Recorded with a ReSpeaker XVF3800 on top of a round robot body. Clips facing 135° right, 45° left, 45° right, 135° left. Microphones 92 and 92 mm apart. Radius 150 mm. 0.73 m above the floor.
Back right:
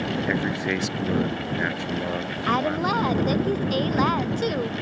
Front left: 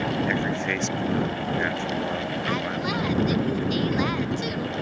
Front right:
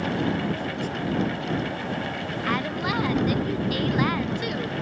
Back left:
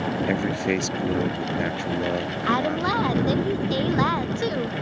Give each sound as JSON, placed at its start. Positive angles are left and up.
{"t": 0.3, "sound": "a man speaking", "azimuth_deg": 145}
{"t": 2.5, "sound": "a woman speaking", "azimuth_deg": -165}